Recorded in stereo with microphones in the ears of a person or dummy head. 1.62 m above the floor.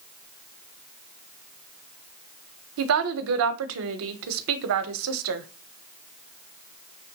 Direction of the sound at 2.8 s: 75° right (ahead or behind).